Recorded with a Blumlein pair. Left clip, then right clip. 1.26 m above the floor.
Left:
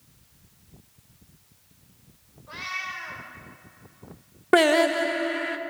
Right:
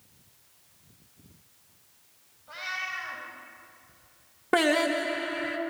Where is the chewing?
I don't hear chewing.